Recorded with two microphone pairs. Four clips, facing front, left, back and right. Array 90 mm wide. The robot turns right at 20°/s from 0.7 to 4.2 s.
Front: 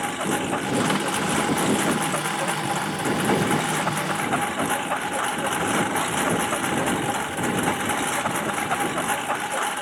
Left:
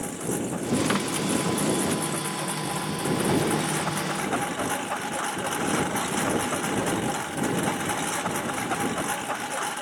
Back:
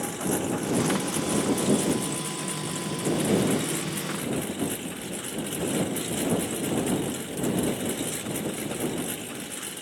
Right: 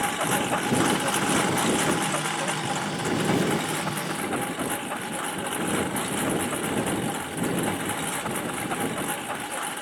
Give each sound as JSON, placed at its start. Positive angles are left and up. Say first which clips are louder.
{"t": 0.0, "sound": "a lawn mower", "louder": "right 4 dB, front 3 dB", "azimuth_deg": -60}